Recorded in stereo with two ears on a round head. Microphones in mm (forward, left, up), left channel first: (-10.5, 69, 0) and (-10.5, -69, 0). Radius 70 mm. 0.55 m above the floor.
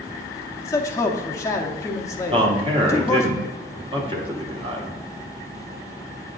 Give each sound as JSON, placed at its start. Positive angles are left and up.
{"t": 0.6, "sound": "a man speaking", "side_deg": 20, "distance_m": 0.6}
{"t": 2.3, "sound": "a man speaking", "side_deg": -35, "distance_m": 1.1}